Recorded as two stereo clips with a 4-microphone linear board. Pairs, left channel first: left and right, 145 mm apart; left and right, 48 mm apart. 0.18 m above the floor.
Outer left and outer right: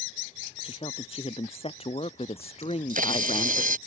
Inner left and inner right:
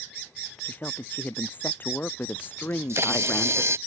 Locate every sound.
0.6 s a woman speaking: 40° left (ahead or behind); by 3.6 s 45° left (ahead or behind)
2.6 s a camera shutter: 70° right (ahead or behind)